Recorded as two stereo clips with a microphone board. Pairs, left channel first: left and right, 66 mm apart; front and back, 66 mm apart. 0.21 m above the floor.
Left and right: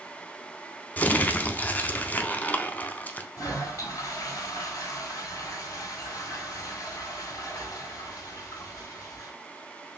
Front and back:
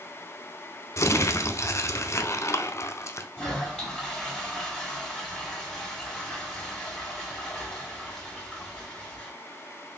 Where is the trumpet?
I don't hear a trumpet.